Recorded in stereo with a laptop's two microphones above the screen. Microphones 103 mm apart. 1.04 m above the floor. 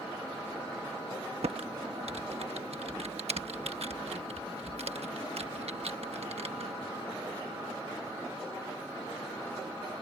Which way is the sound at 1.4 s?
80° right.